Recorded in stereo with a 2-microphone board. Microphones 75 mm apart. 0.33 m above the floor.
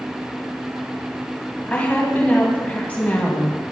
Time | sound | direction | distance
1.7 | a woman speaking | 20° left (ahead or behind) | 2.5 m